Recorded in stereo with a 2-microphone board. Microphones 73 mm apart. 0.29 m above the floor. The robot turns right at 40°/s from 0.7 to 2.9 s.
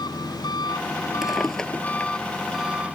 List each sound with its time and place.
0.0 s an engine running: 110° left; by 3.0 s 160° right
1.2 s a drawer: 5° right (ahead or behind); by 2.1 s 30° left (ahead or behind)